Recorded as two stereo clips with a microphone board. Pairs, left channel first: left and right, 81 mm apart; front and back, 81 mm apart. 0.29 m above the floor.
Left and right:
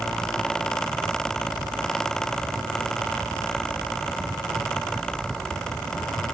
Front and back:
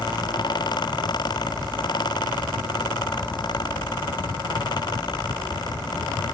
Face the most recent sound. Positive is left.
No sound to turn to.